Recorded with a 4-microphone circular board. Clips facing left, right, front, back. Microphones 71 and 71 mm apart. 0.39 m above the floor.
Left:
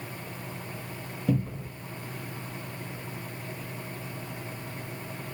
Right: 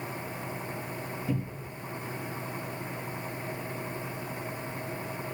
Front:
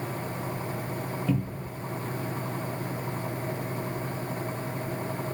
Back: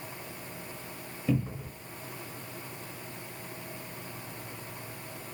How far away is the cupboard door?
About 0.7 m.